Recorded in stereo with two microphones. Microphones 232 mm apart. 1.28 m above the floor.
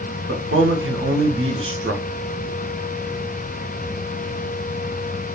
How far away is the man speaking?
About 0.6 m.